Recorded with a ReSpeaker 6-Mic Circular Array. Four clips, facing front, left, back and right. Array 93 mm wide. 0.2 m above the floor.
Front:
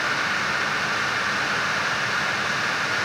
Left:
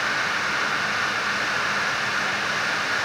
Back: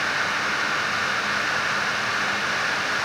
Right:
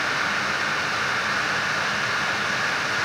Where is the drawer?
I don't hear a drawer.